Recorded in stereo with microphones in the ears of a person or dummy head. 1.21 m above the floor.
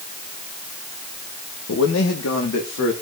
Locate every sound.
1.7 s a man speaking: 60° left (ahead or behind), 1.2 m; by 2.9 s 70° left (ahead or behind), 2.5 m